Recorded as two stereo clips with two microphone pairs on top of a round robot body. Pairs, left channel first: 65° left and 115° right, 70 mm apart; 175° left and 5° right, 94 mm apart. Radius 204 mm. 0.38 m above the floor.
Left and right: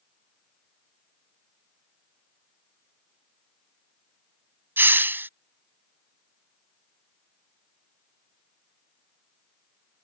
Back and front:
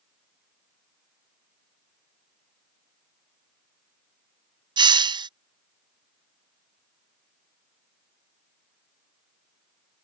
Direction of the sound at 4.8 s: 50° right.